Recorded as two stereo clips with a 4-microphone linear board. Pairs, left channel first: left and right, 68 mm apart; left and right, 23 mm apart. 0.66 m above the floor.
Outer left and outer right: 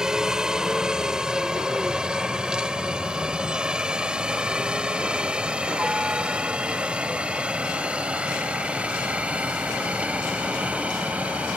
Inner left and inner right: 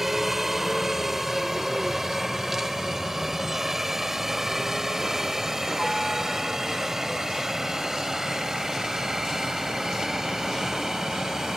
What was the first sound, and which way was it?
A helicopter, 10° right (ahead or behind).